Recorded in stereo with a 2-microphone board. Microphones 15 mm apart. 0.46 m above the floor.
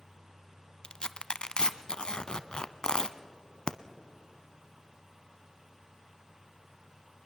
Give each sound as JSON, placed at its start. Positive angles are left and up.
{"t": 0.8, "sound": "tearing paper", "side_deg": 65, "distance_m": 0.7}